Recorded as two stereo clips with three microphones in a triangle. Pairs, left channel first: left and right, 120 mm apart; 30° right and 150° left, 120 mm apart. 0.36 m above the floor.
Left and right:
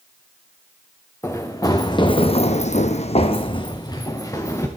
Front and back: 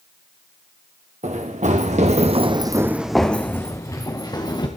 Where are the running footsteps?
160° left, 2 m; by 4.7 s 25° left, 3 m.